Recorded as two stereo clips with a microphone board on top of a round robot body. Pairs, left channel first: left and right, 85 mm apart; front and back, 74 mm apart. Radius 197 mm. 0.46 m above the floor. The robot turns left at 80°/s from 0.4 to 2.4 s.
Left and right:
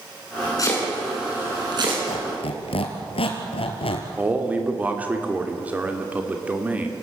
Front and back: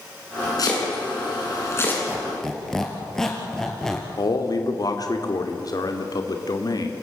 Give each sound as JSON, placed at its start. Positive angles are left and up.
{"t": 0.6, "sound": "chopping", "azimuth_deg": 40, "distance_m": 6.5}
{"t": 2.1, "sound": "a squeak", "azimuth_deg": 110, "distance_m": 2.0}
{"t": 4.2, "sound": "a man speaking", "azimuth_deg": -20, "distance_m": 2.0}